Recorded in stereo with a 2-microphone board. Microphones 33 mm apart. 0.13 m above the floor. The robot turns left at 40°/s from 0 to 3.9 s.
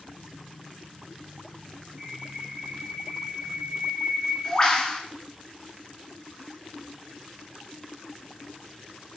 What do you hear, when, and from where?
2.0 s a bird: 145° right, 1.5 m; by 5.0 s 140° left, 1.5 m